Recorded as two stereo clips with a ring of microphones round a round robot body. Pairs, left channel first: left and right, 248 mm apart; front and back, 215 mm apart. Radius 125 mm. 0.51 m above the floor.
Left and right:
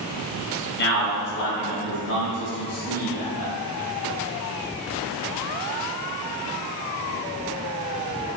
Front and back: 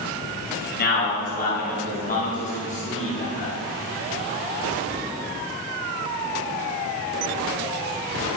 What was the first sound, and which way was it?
A man speaking, 40° left.